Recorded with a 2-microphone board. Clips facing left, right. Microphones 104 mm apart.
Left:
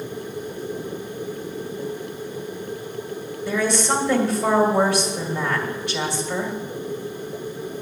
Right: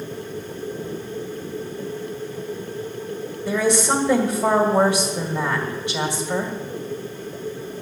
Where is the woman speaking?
20° right (ahead or behind), 2 m.